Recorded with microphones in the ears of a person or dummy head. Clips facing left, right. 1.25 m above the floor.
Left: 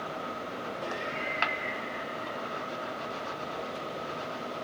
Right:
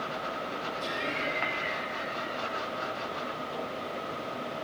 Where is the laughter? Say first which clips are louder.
Right 2 dB; 50° right (ahead or behind), 1.6 m.